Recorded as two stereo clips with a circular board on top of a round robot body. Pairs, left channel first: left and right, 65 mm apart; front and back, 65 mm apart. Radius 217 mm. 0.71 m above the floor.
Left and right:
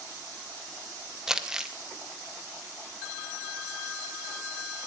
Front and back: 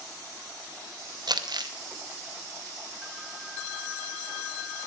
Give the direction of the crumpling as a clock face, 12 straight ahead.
6 o'clock.